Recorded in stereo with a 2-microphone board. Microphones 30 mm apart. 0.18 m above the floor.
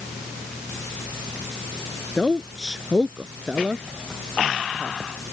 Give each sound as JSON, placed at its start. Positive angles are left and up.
{"t": 2.2, "sound": "a woman speaking", "side_deg": 10}